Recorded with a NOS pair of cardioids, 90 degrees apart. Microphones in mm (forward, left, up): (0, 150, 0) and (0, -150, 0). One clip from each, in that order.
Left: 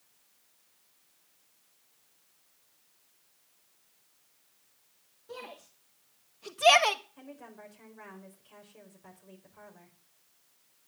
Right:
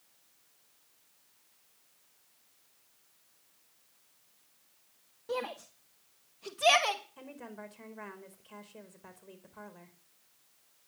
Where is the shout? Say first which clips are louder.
Right 8 dB; 55° right, 2 m; by 7.0 s 35° left, 1.6 m.